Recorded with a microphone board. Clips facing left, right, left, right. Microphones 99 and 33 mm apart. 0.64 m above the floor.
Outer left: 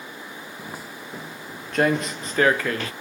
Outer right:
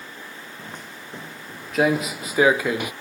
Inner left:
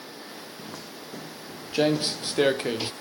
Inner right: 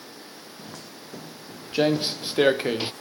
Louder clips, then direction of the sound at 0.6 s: Outer left 2 dB, inner left 2 dB; 10° left (ahead or behind).